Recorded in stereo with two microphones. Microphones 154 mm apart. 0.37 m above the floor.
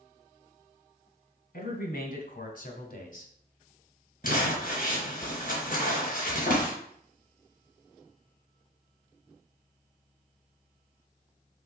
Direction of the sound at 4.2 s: 60° left (ahead or behind).